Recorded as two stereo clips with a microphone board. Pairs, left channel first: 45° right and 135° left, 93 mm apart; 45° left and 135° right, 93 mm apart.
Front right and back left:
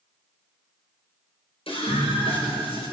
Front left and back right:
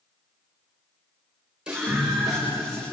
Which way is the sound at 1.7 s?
55° right.